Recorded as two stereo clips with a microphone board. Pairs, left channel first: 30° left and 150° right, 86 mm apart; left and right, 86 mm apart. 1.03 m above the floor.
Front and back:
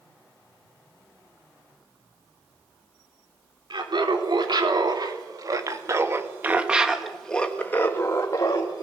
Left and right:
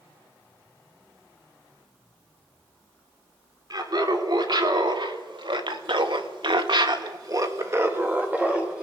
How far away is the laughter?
About 3.5 m.